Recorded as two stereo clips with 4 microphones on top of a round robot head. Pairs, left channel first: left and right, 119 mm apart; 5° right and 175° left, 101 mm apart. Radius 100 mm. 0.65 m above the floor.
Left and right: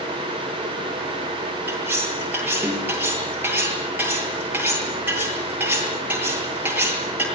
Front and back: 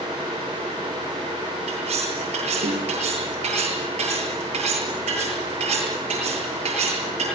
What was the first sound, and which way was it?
Cutlery clinking, 165° right.